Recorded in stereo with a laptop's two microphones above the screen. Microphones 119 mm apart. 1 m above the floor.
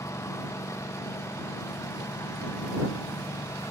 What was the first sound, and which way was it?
A lawn mower, 25° left (ahead or behind).